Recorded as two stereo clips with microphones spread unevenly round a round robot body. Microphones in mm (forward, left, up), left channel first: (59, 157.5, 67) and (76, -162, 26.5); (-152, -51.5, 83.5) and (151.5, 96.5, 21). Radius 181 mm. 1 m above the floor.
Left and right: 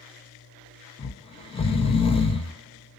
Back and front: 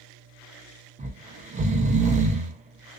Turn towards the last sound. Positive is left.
turn(degrees=20)